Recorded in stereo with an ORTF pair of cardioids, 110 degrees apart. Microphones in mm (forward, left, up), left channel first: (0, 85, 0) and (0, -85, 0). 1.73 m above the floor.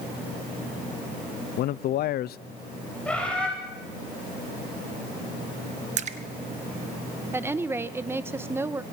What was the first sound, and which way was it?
A man speaking, 65° left.